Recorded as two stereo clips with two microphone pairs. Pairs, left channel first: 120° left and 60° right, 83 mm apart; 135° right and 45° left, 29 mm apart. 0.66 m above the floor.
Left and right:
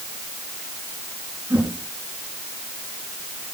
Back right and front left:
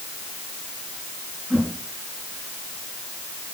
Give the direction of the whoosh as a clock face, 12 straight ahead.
12 o'clock.